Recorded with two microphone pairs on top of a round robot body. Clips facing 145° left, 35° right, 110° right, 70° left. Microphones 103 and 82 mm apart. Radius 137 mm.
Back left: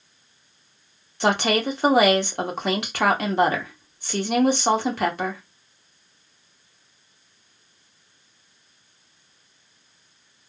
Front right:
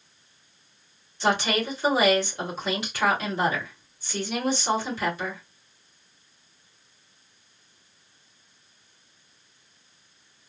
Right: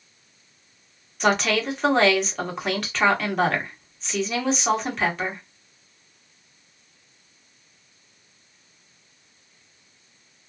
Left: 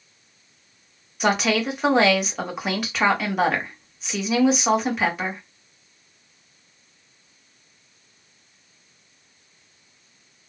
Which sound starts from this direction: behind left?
A woman speaking, at 1.2 s.